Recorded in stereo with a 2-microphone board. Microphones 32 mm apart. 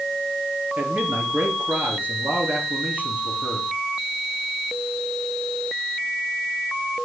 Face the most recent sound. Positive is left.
turn(degrees=-75)  # may be behind; listen again after turning